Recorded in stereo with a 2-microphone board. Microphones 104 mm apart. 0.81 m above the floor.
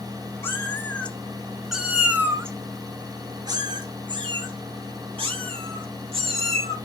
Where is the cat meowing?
25° left (ahead or behind), 1.6 m; by 6.8 s 70° right (ahead or behind), 3.5 m.